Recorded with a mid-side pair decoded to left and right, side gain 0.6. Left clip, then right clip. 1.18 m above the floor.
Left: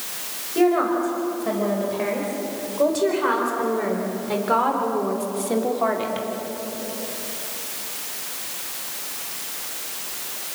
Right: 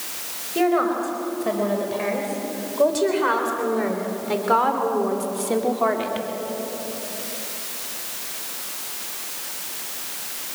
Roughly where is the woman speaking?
Ahead.